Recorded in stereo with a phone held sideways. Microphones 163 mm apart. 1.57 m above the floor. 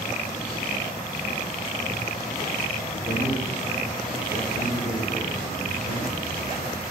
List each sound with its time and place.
2.9 s a man speaking: 70° left (ahead or behind), 3 m